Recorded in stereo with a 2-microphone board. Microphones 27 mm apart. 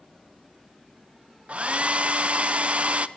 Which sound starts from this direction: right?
A hair dryer, at 1.5 s.